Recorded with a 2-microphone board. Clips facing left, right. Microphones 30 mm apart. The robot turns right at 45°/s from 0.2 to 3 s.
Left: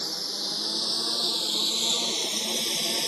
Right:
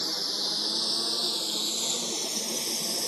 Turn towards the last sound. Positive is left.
turn(degrees=50)  # may be behind; listen again after turning